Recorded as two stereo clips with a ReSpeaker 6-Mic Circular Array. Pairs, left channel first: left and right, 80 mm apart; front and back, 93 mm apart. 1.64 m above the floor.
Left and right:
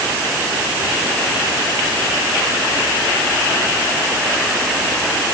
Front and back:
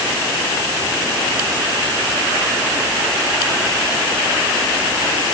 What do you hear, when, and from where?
Only background noise.